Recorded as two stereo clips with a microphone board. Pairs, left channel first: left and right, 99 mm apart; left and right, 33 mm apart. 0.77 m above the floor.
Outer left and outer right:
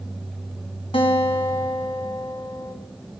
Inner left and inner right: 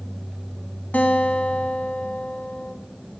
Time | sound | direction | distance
0.9 | a guitar | 65° left (ahead or behind) | 1.6 m